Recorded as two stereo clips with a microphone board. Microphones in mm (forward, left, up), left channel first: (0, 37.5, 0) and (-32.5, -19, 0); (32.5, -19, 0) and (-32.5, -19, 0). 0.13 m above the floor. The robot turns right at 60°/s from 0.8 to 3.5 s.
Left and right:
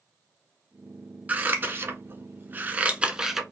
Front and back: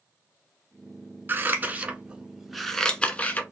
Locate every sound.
1.3 s scissors: 165° right, 0.5 m; by 3.4 s 35° right, 0.5 m